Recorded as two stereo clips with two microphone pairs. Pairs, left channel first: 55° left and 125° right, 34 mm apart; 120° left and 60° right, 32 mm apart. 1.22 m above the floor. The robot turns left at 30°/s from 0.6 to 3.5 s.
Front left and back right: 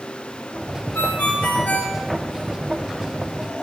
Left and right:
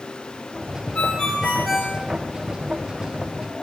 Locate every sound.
0.9 s a ringtone: 70° left, 3.5 m; by 2.0 s 40° left, 3.5 m